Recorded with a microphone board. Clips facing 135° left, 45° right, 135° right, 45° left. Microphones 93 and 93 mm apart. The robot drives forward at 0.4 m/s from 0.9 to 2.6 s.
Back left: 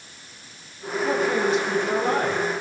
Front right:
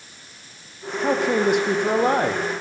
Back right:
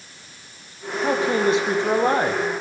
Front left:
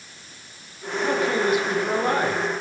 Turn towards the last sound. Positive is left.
turn(degrees=-75)